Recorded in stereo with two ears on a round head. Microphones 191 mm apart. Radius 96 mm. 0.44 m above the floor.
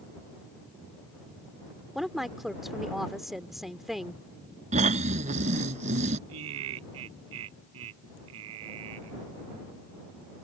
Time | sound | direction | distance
1.9 | a woman speaking | centre (ahead or behind) | ?
4.7 | snoring | 35° right (ahead or behind) | ?
6.3 | laughter | 70° right (ahead or behind) | ?